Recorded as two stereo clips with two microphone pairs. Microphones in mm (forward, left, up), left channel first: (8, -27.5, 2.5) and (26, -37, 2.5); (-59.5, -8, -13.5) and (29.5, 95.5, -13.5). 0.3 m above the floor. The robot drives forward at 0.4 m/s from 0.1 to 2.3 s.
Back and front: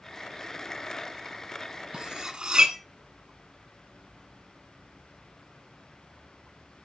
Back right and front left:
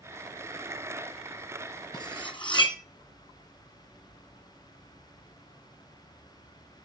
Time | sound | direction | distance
1.9 | cutlery clinking | 75° right | 1.6 m